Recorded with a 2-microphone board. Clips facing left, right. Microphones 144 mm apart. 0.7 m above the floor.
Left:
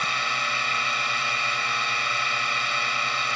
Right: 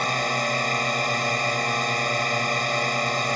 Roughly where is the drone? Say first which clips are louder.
Right 6 dB; right.